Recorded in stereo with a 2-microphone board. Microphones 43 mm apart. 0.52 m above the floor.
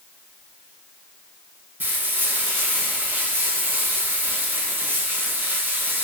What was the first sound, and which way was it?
Frying, 45° right (ahead or behind).